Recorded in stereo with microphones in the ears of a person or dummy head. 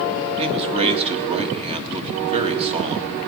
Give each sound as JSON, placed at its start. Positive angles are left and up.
{"t": 0.4, "sound": "a man speaking", "side_deg": -30, "distance_m": 1.9}